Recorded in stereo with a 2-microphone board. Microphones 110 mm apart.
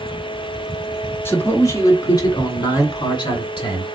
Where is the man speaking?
20° left (ahead or behind), 1.1 m; by 3.8 s 50° left (ahead or behind), 2 m.